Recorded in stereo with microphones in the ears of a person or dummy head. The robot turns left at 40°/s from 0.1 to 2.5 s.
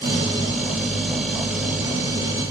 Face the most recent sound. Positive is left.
No sound to turn to.